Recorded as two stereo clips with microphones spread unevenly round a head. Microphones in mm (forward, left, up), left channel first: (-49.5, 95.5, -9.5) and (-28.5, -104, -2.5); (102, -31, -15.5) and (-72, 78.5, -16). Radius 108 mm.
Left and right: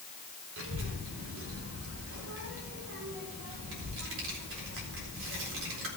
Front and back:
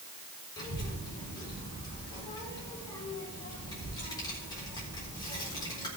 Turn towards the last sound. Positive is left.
turn(degrees=-105)